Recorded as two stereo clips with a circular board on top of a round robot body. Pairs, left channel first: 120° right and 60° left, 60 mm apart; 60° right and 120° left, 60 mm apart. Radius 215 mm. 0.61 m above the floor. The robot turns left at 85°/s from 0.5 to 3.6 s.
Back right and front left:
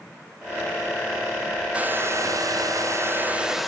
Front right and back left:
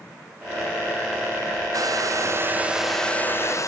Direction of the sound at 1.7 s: 130° left.